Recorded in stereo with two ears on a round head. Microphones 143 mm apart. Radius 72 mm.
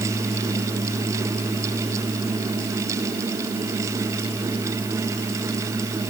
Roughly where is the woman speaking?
No woman speaking in this recording.